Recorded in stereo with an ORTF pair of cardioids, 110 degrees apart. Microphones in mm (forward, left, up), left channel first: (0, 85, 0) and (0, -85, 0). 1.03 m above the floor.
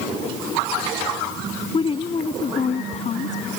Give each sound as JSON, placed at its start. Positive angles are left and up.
{"t": 1.7, "sound": "a woman speaking", "azimuth_deg": 30}